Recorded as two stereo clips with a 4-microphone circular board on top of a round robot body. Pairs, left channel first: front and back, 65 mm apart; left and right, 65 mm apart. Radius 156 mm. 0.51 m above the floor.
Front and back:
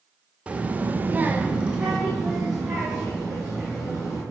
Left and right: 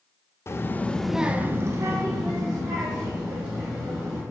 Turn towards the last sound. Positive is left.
turn(degrees=-95)